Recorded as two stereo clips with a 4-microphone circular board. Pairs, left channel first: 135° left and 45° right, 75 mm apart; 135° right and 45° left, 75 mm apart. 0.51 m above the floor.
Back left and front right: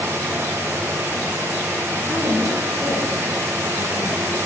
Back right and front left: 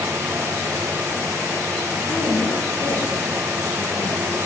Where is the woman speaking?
125° right, 3.5 m; by 4.4 s 145° right, 3.5 m.